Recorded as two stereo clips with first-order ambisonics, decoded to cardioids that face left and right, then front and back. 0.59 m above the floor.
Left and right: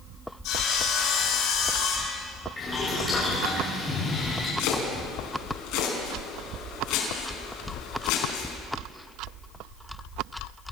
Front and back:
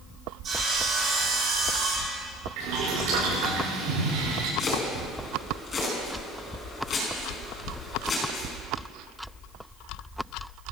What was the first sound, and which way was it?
Sawing, 120° left.